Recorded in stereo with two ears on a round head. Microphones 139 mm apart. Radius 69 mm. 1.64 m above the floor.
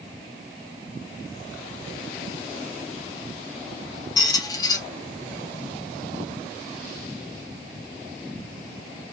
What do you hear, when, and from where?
4.2 s a squeak: 25° left (ahead or behind), 0.6 m